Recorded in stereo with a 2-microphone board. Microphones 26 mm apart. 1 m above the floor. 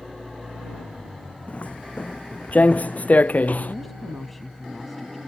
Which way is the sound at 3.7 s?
Centre (ahead or behind).